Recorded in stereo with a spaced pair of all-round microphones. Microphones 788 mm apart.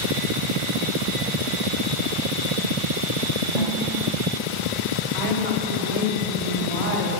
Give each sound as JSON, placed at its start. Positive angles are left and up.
{"t": 3.5, "sound": "a snare drum", "side_deg": 50, "distance_m": 5.5}
{"t": 5.1, "sound": "a woman speaking", "side_deg": -60, "distance_m": 4.0}